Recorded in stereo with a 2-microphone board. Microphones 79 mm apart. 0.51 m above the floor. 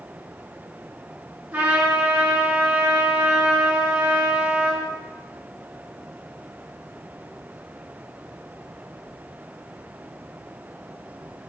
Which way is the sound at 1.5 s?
20° right (ahead or behind).